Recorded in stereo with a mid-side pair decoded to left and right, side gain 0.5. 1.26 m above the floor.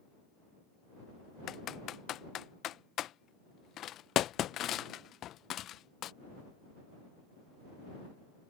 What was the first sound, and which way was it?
Typing on a keyboard, 60° left.